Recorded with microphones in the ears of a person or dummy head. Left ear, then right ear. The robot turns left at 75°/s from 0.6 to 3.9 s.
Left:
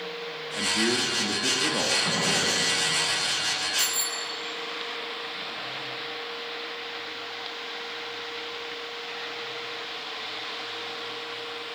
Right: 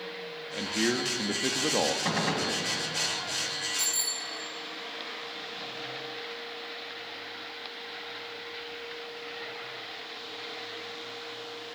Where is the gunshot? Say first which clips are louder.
Left 4 dB; 95° right, 3 m; by 2.6 s 135° right, 3 m.